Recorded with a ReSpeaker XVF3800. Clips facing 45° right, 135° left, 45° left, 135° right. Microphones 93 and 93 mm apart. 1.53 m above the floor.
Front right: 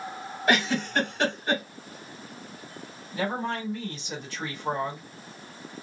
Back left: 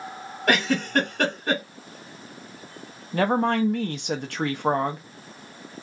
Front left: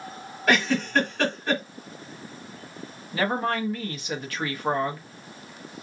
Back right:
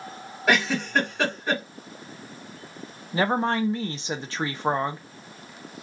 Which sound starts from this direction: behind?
A woman speaking, at 3.1 s.